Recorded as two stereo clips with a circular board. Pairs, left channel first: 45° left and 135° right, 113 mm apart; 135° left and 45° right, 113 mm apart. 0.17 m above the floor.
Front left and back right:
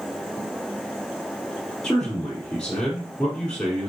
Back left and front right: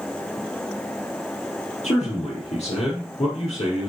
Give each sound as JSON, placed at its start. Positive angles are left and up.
{"t": 1.8, "sound": "a man speaking", "azimuth_deg": 125, "distance_m": 4.5}